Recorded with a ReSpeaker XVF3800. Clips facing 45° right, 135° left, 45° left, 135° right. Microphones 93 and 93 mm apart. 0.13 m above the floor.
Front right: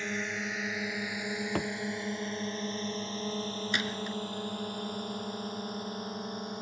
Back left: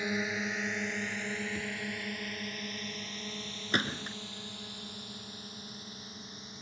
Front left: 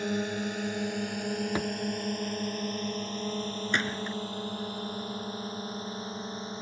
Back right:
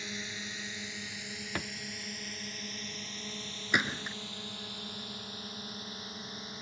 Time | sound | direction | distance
0.0 | a drone | 55° left | ?
1.6 | a thud | 25° right | ?
3.7 | a gunshot | 150° left | ?